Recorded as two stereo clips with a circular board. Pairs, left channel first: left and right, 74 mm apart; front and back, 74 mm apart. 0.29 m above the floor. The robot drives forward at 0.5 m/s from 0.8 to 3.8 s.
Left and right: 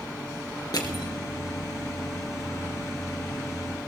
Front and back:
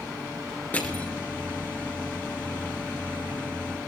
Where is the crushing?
65° left, 2.5 m; by 1.1 s 70° left, 2.5 m.